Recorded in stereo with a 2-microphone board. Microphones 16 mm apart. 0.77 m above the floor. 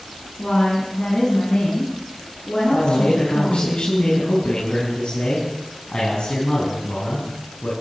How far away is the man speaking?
About 7 m.